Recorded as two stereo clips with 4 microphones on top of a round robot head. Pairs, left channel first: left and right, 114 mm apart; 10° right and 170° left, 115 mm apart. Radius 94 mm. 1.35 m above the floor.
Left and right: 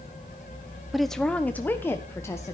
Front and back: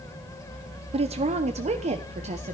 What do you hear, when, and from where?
0.9 s a woman speaking: straight behind, 0.7 m; by 2.5 s 155° left, 1.5 m